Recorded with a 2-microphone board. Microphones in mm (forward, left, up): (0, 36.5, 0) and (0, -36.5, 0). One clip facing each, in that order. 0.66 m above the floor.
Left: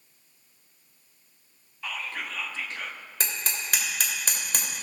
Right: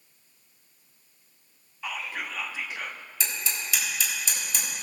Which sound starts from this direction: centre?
Whispering, at 1.8 s.